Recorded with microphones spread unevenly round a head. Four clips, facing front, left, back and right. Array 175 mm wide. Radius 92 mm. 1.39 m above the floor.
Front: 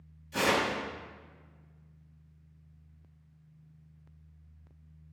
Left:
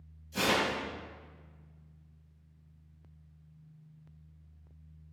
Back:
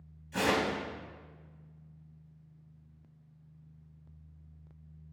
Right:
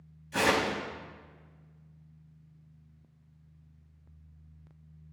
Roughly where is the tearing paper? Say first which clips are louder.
Right 3 dB, front 1 dB; ahead right.